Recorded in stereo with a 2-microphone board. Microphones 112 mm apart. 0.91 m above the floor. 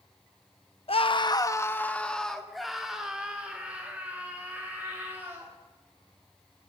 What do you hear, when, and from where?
0.9 s a scream: 55° left (ahead or behind), 1.0 m; by 5.5 s 20° right (ahead or behind), 5 m